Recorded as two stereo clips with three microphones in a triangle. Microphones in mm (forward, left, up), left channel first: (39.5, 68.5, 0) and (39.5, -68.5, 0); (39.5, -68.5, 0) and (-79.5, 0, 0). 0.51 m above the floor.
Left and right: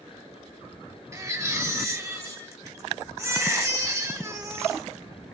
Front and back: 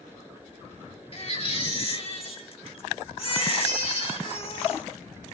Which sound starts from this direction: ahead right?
A baby crying, at 1.1 s.